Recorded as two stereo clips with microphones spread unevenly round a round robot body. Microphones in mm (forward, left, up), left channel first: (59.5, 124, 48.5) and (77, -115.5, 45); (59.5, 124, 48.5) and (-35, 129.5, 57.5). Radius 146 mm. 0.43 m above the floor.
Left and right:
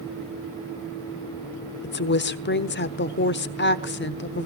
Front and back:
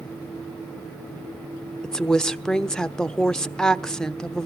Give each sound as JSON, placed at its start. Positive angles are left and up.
{"t": 1.8, "sound": "a woman speaking", "azimuth_deg": 75, "distance_m": 1.1}